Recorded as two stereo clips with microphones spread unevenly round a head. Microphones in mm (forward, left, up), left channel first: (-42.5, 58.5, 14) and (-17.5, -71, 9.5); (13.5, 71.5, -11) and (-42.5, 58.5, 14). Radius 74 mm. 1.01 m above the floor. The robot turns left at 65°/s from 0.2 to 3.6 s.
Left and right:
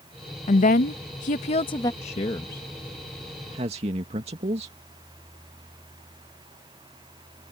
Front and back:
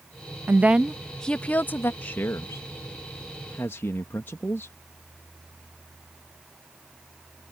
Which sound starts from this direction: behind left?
A woman speaking, at 0.5 s.